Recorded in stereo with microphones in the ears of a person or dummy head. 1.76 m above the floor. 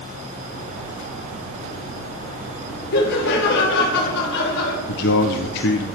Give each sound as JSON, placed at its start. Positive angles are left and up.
{"t": 2.9, "sound": "laughter", "side_deg": 65, "distance_m": 2.0}
{"t": 4.9, "sound": "a man speaking", "side_deg": 60, "distance_m": 1.1}